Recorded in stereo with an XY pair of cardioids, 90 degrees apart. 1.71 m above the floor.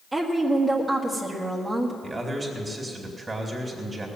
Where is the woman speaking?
35° right, 1.6 m.